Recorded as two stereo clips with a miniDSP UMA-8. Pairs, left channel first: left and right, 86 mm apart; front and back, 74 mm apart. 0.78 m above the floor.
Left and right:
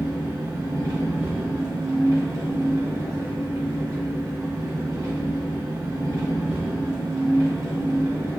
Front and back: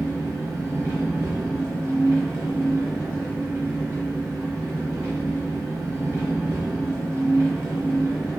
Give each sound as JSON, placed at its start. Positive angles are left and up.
{"t": 0.0, "sound": "an engine running", "azimuth_deg": -130, "distance_m": 0.9}